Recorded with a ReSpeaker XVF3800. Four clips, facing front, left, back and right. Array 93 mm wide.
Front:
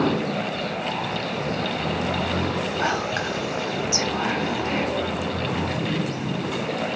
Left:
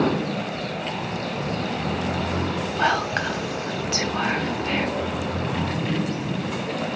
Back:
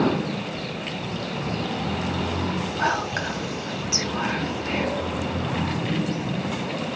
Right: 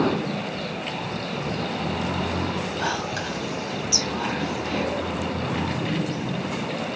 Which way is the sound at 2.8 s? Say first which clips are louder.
Left 9 dB, back 2 dB; 90° left.